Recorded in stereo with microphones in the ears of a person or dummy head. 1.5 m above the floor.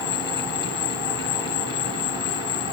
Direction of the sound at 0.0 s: 55° left (ahead or behind).